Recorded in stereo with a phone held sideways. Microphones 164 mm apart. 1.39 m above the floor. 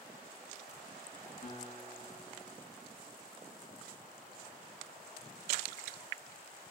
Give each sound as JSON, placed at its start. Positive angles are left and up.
{"t": 1.4, "sound": "a guitar", "side_deg": 40, "distance_m": 8.0}